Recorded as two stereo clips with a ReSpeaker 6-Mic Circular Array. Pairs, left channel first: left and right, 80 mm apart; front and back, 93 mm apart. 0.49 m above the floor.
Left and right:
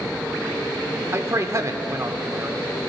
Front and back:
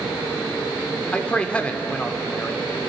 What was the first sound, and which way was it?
A man speaking, 70° right.